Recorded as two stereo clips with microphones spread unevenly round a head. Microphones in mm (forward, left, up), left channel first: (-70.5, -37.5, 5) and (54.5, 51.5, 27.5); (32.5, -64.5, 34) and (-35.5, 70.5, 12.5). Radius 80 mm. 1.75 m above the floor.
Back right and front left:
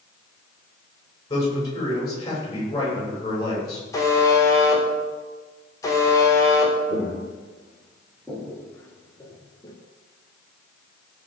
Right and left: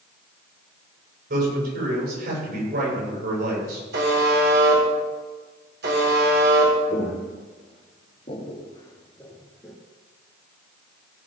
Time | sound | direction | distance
1.3 | a man speaking | 150° left | 8 m
3.9 | a buzzer | 145° left | 4 m
6.9 | footsteps | 45° right | 3 m